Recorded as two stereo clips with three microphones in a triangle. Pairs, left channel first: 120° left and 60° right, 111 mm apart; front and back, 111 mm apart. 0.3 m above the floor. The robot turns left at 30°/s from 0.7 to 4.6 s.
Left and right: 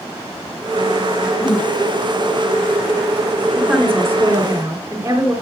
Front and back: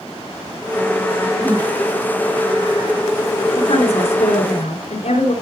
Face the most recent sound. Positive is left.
turn(degrees=5)